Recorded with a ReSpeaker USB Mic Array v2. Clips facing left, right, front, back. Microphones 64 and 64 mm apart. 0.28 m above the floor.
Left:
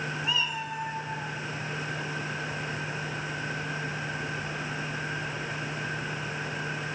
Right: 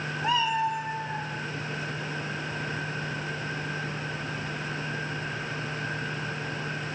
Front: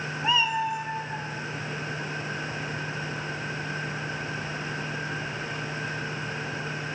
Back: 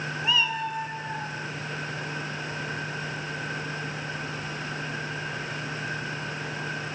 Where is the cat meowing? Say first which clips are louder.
Right 9 dB, front 3 dB; 55° right, 1.0 m; by 1.3 s 90° right, 2.5 m.